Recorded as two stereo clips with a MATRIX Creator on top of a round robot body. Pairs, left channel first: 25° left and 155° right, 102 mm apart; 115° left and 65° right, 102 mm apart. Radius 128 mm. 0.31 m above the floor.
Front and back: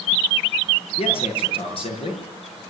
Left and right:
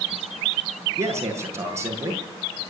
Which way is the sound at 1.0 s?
5° right.